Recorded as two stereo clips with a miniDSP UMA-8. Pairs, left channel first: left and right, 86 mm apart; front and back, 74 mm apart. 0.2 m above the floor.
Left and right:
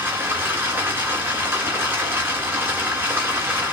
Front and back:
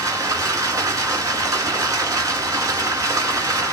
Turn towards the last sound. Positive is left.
turn(degrees=-150)